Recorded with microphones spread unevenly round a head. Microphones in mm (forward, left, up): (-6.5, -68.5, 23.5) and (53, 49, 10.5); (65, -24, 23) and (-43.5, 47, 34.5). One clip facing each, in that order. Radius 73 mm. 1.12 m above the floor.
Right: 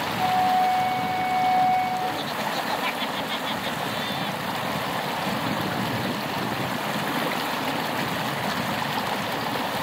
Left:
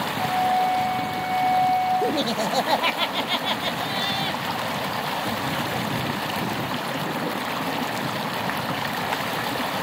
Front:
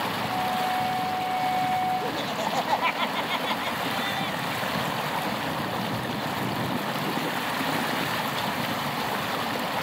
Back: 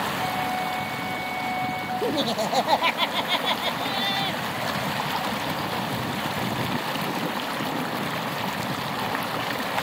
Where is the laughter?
90° left, 0.6 m.